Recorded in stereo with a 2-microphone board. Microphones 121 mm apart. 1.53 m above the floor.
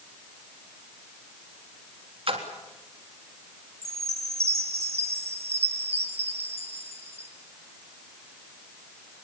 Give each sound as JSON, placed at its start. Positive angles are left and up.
{"t": 2.3, "sound": "a splash", "side_deg": -50, "distance_m": 3.5}
{"t": 3.8, "sound": "a chime", "side_deg": -60, "distance_m": 2.5}